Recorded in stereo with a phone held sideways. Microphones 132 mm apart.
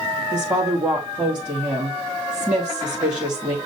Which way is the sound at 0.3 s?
10° right (ahead or behind).